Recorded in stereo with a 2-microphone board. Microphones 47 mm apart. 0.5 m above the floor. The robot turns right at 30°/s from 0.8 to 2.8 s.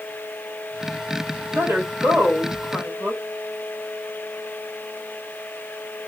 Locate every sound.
1.5 s a woman speaking: 85° right, 2.5 m; by 3.2 s 50° right, 2.5 m